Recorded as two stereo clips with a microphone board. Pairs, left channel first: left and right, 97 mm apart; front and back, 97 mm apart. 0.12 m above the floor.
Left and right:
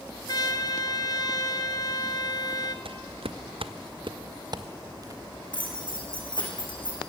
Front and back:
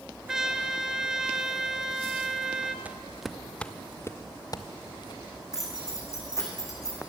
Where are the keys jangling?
55° left, 4.5 m.